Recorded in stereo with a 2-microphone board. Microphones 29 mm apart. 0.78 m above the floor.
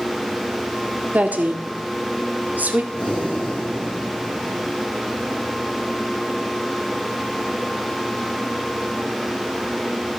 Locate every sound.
1.1 s a woman speaking: 70° right (ahead or behind), 1.7 m
2.9 s breathing: 30° left (ahead or behind), 7 m